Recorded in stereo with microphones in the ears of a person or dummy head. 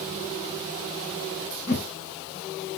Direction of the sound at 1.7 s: 55° left (ahead or behind).